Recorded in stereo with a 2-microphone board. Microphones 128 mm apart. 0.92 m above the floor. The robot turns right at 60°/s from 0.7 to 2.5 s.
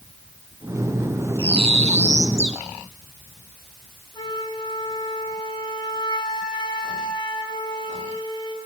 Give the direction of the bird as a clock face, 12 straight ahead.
4 o'clock.